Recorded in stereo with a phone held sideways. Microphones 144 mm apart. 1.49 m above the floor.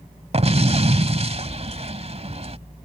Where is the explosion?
45° right (ahead or behind).